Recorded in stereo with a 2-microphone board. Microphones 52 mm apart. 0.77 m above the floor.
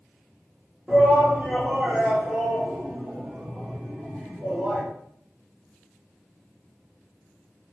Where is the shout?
30° right (ahead or behind), 1.3 m.